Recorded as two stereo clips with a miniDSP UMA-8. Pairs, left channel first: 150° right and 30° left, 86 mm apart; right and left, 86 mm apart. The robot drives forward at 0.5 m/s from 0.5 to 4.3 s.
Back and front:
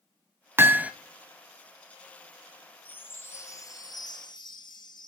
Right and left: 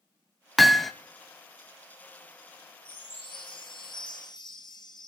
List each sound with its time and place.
0.6 s hammering: straight ahead, 0.6 m; by 0.9 s 5° right, 0.5 m
2.9 s a chime: 80° right, 1.0 m; by 5.1 s 120° right, 1.1 m